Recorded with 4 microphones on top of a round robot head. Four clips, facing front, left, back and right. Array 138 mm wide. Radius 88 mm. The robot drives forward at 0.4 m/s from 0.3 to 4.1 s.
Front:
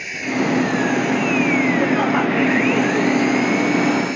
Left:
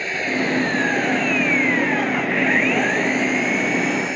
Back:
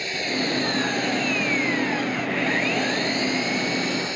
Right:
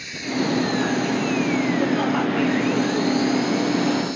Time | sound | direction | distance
0.0 | an engine running | 110° left | ?